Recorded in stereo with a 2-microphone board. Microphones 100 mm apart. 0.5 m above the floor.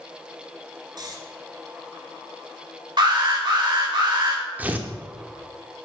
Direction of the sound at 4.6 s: 15° right (ahead or behind).